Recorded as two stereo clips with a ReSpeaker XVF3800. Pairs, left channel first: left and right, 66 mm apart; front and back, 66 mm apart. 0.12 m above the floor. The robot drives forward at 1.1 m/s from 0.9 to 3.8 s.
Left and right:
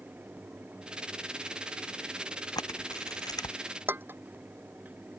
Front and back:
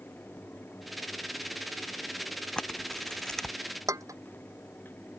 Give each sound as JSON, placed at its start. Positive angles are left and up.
{"t": 2.6, "sound": "a camera shutter", "azimuth_deg": 75}
{"t": 3.9, "sound": "dishes clattering", "azimuth_deg": -145}